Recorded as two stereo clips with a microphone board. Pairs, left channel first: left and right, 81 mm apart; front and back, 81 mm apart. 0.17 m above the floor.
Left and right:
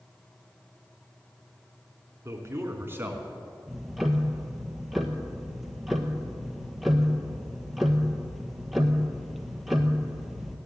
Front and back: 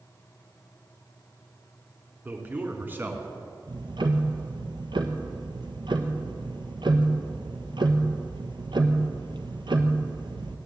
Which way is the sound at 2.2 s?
125° right.